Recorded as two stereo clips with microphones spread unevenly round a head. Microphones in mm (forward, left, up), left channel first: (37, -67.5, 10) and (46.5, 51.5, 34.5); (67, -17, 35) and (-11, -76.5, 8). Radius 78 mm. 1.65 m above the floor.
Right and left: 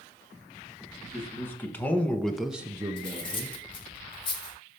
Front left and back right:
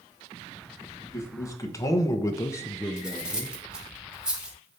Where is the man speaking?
20° right, 2.0 m; by 3.6 s 130° left, 1.1 m.